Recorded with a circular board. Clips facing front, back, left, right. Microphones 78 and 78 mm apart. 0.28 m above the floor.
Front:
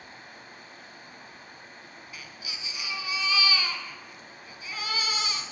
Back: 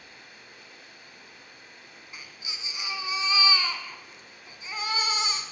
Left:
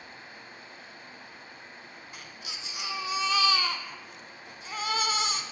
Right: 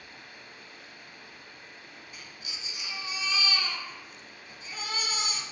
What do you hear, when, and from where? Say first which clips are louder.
0.0 s running water: front 4 dB, left 2 dB; 35° left, 0.8 m
2.1 s a baby crying: back 1 dB, left 3 dB; 115° left, 0.7 m